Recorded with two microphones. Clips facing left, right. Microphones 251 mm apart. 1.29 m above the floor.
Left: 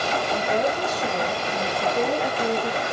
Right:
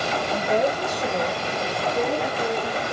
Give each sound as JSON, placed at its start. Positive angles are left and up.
{"t": 0.3, "sound": "a woman speaking", "side_deg": -20, "distance_m": 2.5}